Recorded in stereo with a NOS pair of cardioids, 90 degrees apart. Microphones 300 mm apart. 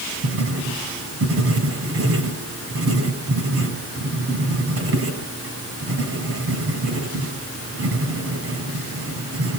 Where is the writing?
50° right, 6.5 m.